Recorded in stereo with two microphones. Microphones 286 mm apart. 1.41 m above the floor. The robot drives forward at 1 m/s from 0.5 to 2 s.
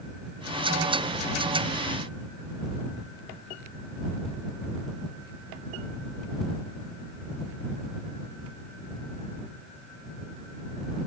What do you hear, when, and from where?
Only background noise.